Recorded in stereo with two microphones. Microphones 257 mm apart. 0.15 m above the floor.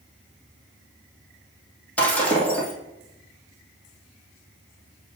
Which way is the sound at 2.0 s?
5° left (ahead or behind).